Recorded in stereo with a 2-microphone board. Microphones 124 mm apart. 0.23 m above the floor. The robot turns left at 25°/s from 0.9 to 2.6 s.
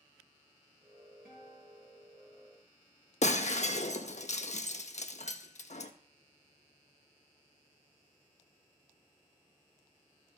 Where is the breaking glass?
65° left (ahead or behind), 0.6 m.